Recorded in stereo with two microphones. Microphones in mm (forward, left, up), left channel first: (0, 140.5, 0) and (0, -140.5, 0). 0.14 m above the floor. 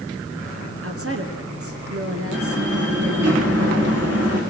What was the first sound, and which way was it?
A woman speaking, 50° right (ahead or behind).